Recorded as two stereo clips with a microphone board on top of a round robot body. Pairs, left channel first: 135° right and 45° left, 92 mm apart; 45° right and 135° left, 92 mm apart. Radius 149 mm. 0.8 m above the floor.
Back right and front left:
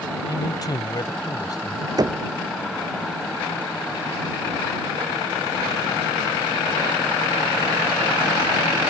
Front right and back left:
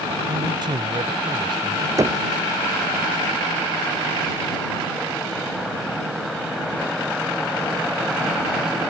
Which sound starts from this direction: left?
Knocking, at 2.0 s.